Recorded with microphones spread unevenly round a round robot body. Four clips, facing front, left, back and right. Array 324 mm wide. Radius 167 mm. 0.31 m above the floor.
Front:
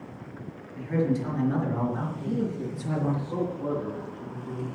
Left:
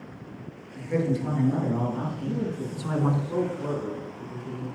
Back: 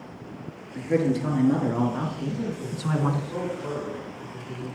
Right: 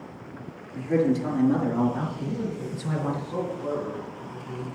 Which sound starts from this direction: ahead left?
A man speaking, at 2.2 s.